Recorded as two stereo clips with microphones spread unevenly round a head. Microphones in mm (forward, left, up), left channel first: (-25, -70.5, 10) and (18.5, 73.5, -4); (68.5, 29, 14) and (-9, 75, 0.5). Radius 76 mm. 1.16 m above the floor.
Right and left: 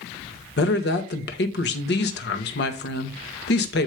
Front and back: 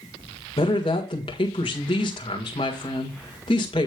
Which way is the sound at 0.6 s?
90° right.